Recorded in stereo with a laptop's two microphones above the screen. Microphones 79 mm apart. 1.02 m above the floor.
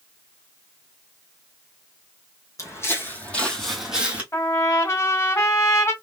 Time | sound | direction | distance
2.6 | footsteps | 40° left (ahead or behind) | 1.7 m
4.3 | a trumpet | 40° left (ahead or behind) | 1.5 m